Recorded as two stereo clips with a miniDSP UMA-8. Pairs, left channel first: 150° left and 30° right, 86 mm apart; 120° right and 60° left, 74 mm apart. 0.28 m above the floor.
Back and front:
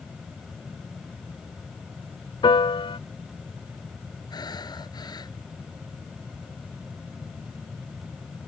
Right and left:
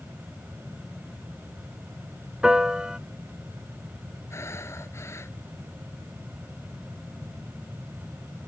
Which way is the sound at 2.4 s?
140° left.